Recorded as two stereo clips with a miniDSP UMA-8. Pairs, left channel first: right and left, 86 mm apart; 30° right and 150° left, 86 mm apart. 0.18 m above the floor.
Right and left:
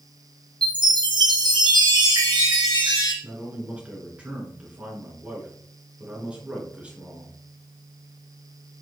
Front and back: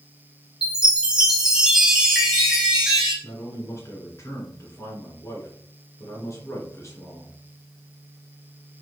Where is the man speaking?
15° left, 2 m.